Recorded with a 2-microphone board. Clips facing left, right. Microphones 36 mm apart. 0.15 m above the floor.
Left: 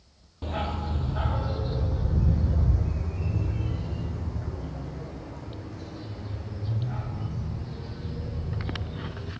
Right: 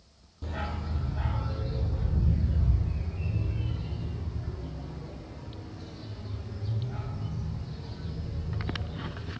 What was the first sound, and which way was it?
A dog barking, 45° left (ahead or behind).